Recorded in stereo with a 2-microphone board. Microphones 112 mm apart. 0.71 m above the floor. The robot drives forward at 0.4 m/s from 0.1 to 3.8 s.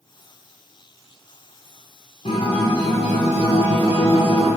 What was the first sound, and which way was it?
A guitar, 65° left (ahead or behind).